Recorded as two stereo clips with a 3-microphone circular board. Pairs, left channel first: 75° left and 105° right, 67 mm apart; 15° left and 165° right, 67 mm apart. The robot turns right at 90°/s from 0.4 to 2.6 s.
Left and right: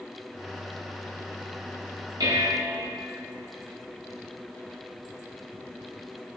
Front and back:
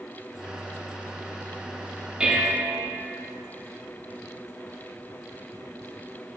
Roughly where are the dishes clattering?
Right.